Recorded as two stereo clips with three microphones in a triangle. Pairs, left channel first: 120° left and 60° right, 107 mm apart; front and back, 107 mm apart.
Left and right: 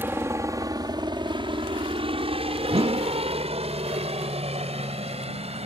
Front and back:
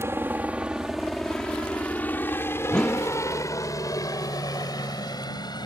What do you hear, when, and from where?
0.0 s a helicopter: 125° right; by 5.7 s 50° right
2.7 s a whoosh: 80° right